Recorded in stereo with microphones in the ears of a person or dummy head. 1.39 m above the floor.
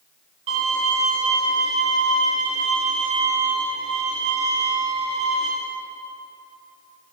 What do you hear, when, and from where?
0.5 s a violin: 35° right (ahead or behind), 3 m